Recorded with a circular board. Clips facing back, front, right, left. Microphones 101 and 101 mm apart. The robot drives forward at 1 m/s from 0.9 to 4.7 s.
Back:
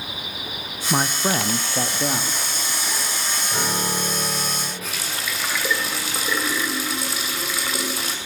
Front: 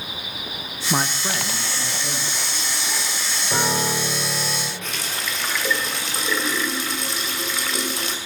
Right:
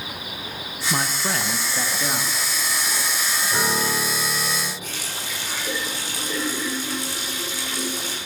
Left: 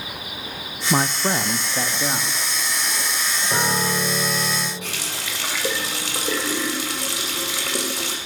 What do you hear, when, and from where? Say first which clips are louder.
0.9 s a man speaking: back 3 dB, left 5 dB; 85° left, 0.6 m; by 2.4 s 170° left, 1.6 m
3.5 s a piano: front 4 dB, left 2 dB; 50° left, 5 m; by 4.7 s 65° left, 4.5 m
4.8 s a running tap: even, left 2 dB; 95° left, 2.5 m